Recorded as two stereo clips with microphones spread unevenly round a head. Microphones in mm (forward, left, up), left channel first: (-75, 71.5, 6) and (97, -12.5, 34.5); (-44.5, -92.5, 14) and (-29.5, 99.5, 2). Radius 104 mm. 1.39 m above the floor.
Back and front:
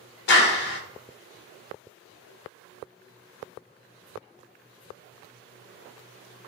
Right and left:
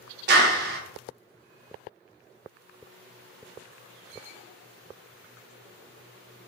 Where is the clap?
120° left, 0.8 m.